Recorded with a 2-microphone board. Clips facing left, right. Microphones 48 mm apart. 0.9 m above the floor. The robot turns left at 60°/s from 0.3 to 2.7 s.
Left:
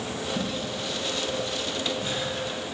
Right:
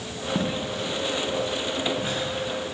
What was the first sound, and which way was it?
Footsteps, 70° right (ahead or behind).